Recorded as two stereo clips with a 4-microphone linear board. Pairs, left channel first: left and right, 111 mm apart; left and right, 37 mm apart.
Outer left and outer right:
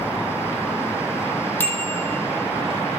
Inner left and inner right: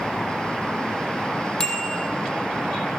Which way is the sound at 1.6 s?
15° left (ahead or behind).